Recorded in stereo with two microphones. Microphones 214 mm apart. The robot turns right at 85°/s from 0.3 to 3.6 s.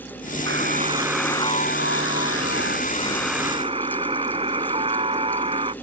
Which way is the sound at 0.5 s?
60° right.